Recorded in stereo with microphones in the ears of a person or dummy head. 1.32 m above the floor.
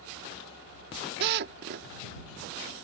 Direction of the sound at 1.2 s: 50° right (ahead or behind).